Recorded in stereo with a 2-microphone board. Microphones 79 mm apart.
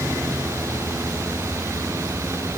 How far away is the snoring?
I don't hear snoring.